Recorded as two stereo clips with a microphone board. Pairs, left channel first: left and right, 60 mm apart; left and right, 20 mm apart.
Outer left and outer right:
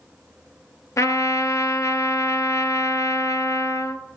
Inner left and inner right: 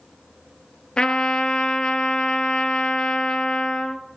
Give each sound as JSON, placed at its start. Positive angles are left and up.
{"t": 1.0, "sound": "a trumpet", "side_deg": 60, "distance_m": 1.0}